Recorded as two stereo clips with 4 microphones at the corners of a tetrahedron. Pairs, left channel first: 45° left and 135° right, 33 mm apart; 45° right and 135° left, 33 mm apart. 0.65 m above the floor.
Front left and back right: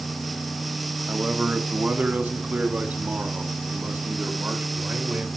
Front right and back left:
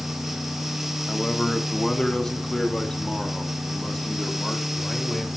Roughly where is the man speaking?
Right.